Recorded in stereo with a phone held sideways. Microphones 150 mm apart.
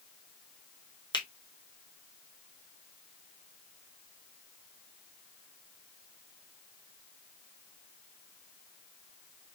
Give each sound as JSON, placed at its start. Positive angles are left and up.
{"t": 1.1, "sound": "a finger snap", "side_deg": 30, "distance_m": 0.9}